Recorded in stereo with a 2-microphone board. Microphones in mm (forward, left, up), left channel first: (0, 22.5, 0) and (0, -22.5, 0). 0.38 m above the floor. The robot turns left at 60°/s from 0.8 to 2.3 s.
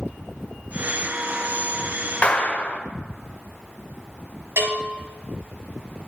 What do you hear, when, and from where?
2.2 s a clap: 30° left (ahead or behind), 1.3 m
4.6 s a bell: 75° right (ahead or behind), 4.5 m